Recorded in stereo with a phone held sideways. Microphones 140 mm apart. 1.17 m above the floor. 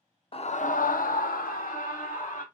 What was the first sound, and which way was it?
A scream, 40° left (ahead or behind).